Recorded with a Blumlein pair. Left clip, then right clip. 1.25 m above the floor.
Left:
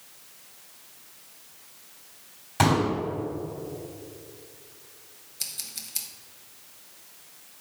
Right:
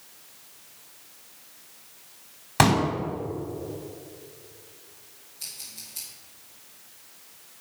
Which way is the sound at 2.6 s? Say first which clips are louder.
Right 2 dB; 25° right.